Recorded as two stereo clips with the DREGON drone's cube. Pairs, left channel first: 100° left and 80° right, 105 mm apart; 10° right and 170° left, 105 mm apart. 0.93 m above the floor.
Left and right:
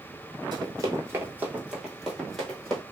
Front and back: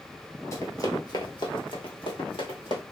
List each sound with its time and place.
0.5 s running footsteps: 60° right, 1.2 m; by 2.8 s 20° left, 2 m